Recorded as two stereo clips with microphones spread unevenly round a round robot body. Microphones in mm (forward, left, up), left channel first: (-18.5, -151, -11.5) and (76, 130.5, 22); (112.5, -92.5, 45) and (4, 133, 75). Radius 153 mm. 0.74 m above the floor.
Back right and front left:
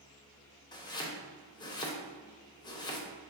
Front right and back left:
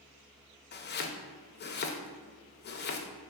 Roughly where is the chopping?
Ahead right.